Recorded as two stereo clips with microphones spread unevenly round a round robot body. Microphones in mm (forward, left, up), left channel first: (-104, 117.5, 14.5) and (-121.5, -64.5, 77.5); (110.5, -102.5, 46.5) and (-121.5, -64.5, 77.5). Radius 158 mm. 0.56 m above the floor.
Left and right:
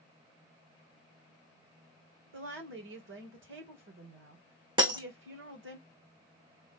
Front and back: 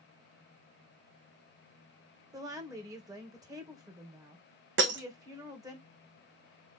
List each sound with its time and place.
2.3 s a woman speaking: 110° right, 2.5 m
4.8 s breaking glass: 155° right, 2.5 m